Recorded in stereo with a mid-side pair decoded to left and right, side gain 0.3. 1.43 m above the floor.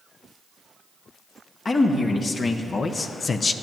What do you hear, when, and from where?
1.6 s a man speaking: 60° left, 1.8 m